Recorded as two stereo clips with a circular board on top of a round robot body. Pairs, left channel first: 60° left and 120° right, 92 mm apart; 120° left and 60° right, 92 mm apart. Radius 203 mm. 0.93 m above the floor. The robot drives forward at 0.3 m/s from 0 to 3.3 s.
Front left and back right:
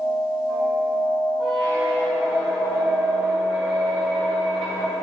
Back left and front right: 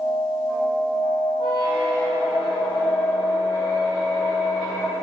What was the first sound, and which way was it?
A squeak, 155° left.